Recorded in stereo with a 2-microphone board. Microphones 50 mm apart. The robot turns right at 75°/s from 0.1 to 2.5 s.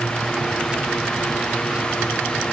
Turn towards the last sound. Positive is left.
No sound to turn to.